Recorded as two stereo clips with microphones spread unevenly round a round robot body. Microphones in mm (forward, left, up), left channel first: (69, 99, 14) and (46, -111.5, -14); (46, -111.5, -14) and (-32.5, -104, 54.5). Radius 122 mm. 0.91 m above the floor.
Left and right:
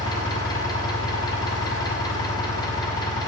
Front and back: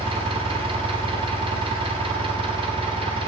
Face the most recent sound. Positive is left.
turn(degrees=160)